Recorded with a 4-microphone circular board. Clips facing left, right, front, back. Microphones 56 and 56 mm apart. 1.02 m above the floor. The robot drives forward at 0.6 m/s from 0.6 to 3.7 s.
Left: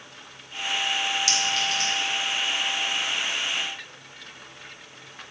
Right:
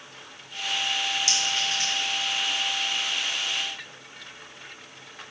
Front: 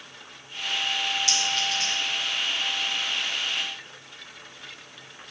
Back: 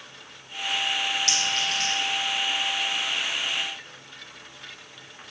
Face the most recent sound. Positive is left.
turn(degrees=-160)